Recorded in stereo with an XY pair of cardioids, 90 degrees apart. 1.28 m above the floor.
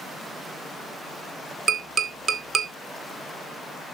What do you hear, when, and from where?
1.7 s tapping: 65° right, 2 m